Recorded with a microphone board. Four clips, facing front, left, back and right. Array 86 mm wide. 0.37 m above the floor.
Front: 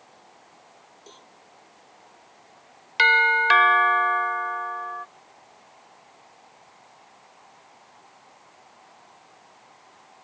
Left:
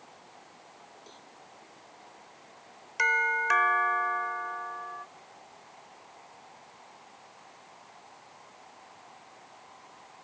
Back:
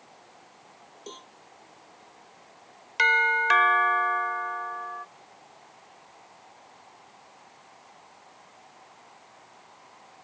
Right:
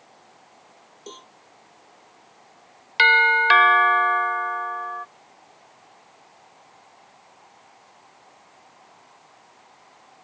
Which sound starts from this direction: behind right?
A cowbell, at 1.1 s.